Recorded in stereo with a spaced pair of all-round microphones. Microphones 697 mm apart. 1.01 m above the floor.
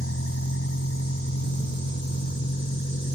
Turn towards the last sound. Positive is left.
turn(degrees=15)  # may be behind; listen again after turning